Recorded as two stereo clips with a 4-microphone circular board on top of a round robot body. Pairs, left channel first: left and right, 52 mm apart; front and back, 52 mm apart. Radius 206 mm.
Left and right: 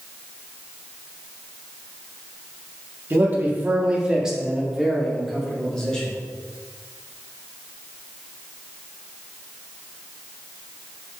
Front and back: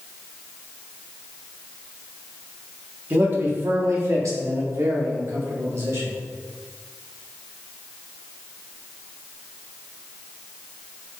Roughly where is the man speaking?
Behind right.